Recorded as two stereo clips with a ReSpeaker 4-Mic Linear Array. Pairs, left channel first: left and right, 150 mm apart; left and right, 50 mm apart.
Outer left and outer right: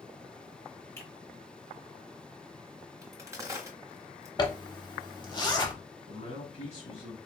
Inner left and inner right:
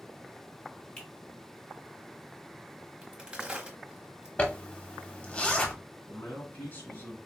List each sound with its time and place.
1.0 s a finger snap: 20° left (ahead or behind), 1.7 m
3.0 s a crack: 20° right (ahead or behind), 1.1 m
4.4 s a zipper: 30° left (ahead or behind), 0.7 m
6.1 s a man speaking: 50° left (ahead or behind), 2.5 m